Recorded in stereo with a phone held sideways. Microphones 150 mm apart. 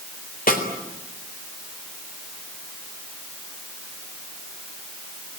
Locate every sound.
0.5 s a snare drum: 70° left (ahead or behind), 3.5 m